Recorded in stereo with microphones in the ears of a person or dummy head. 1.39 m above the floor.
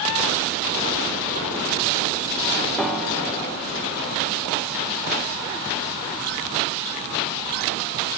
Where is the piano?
5° left (ahead or behind), 0.7 m.